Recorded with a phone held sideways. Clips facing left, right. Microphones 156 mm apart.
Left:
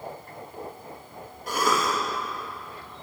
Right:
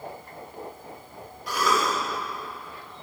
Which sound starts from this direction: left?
A cough, at 1.5 s.